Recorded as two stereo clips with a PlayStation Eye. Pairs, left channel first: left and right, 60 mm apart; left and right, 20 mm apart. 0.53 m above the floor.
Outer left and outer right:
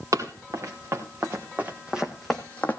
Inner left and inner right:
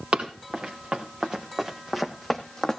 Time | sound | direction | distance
0.1 | running footsteps | 55° right (ahead or behind) | 3.5 m